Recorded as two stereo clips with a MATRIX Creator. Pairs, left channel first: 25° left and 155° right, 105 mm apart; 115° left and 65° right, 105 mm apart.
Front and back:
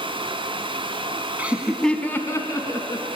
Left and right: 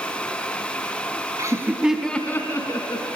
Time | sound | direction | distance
1.4 | laughter | 95° right | 1.1 m